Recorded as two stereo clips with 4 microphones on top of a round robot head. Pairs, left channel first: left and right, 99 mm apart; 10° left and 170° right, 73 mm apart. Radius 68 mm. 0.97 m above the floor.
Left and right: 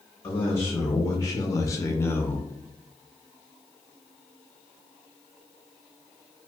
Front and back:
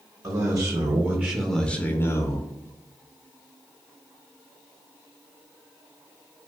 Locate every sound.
0.2 s a man speaking: 150° left, 0.9 m; by 2.5 s 25° left, 0.7 m